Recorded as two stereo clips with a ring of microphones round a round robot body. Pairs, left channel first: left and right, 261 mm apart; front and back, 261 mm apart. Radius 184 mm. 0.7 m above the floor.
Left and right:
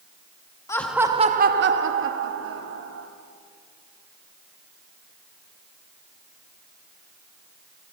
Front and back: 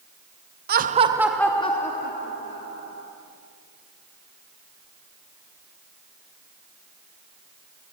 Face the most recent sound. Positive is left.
turn(degrees=-50)